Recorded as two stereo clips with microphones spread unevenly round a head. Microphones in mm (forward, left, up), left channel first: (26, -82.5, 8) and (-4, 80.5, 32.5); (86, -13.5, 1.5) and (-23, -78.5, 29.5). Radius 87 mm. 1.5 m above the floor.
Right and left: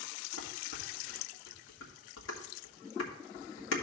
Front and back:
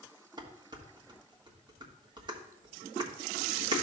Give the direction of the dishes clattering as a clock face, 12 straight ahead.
3 o'clock.